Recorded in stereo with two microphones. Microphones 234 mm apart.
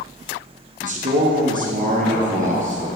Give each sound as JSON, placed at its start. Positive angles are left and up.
{"t": 0.8, "sound": "a man speaking", "side_deg": -30, "distance_m": 1.3}